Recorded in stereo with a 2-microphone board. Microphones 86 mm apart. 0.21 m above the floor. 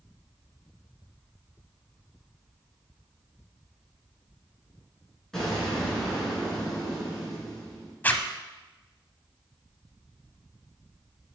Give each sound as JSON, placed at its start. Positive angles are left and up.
{"t": 5.3, "sound": "an explosion", "side_deg": 5, "distance_m": 3.0}
{"t": 8.0, "sound": "a zipper", "side_deg": 20, "distance_m": 0.6}